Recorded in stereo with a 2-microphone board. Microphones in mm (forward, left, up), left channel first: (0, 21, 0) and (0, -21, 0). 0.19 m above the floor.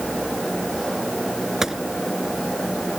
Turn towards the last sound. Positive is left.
turn(degrees=-10)  # may be behind; listen again after turning